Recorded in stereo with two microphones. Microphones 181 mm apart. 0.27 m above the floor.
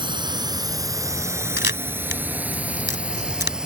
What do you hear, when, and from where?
0.0 s a drone: 25° right (ahead or behind); by 3.7 s 5° right (ahead or behind)
1.6 s a camera shutter: 80° left